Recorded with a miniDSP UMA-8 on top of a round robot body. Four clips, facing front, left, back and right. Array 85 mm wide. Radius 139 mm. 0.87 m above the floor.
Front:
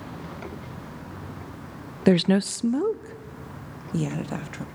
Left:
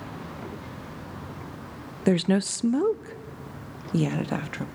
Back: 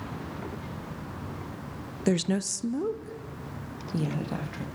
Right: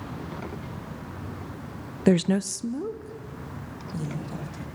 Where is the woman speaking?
5° right, 0.5 m; by 4.7 s 80° left, 1.7 m.